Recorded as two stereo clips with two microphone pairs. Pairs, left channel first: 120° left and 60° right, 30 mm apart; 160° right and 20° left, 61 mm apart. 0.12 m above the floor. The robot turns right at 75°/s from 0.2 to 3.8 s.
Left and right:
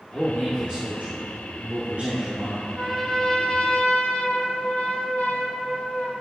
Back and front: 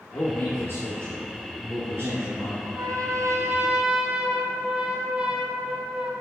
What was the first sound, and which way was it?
A man speaking, 155° right.